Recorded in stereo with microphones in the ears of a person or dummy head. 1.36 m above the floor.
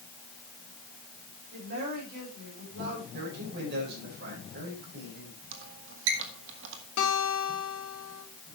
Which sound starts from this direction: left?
A guitar, at 7.0 s.